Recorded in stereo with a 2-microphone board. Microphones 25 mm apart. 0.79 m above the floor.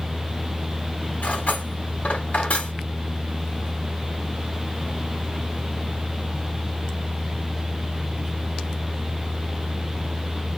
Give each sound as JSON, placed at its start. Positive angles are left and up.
{"t": 1.2, "sound": "cutlery clinking", "side_deg": 85, "distance_m": 1.5}